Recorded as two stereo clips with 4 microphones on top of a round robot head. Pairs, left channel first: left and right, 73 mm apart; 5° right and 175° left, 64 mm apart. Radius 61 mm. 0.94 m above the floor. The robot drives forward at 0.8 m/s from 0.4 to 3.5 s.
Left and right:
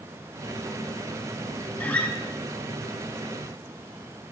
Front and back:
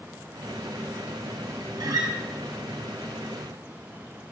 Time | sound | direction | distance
1.8 | a guitar | 160° left | 3 m